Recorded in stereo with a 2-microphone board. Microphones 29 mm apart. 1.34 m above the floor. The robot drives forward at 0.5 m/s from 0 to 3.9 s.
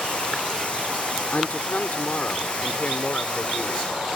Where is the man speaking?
65° left (ahead or behind); by 4.0 s 50° left (ahead or behind).